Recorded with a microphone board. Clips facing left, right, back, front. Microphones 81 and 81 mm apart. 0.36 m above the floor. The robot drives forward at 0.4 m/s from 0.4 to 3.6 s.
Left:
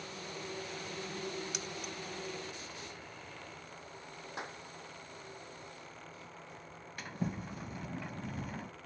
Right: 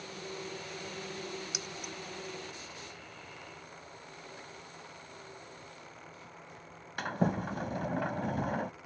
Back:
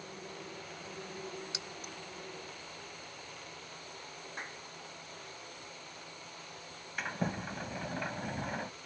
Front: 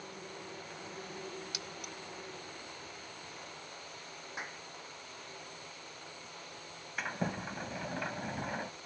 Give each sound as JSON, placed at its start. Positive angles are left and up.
{"t": 1.5, "sound": "keys jangling", "azimuth_deg": -165}
{"t": 4.4, "sound": "a clap", "azimuth_deg": 85}
{"t": 7.0, "sound": "a sliding door", "azimuth_deg": -90}